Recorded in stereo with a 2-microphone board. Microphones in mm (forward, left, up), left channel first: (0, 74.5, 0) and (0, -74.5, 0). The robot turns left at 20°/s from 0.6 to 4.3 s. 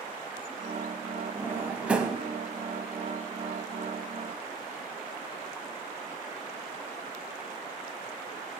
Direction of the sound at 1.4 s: 15° right (ahead or behind).